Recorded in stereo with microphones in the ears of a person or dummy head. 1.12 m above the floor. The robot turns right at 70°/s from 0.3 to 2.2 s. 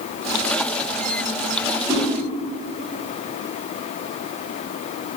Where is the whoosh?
10° right (ahead or behind), 0.8 m; by 2.0 s 15° right (ahead or behind), 0.8 m.